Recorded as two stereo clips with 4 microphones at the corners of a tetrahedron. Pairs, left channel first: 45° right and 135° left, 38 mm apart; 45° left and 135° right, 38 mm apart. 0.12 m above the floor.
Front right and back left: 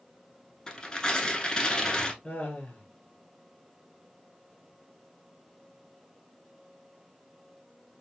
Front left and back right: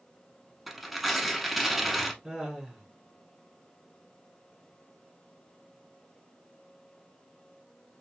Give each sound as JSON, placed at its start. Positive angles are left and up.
{"t": 0.7, "sound": "tearing paper", "azimuth_deg": -50, "distance_m": 0.8}
{"t": 2.2, "sound": "laughter", "azimuth_deg": -65, "distance_m": 1.3}